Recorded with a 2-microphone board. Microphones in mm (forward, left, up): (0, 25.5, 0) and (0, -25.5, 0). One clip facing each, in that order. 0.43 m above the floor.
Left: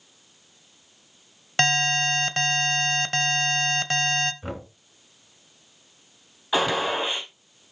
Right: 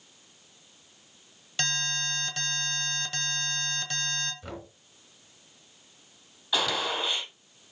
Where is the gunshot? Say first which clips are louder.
Left 5 dB; 30° left (ahead or behind), 4 m.